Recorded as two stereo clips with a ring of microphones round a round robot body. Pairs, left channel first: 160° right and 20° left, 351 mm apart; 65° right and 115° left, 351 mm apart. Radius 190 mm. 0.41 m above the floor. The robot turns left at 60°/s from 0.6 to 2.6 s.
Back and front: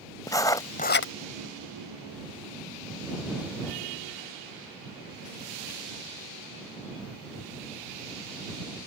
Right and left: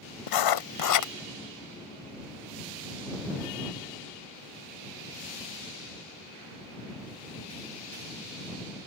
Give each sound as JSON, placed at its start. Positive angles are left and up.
{"t": 0.3, "sound": "writing", "azimuth_deg": -75}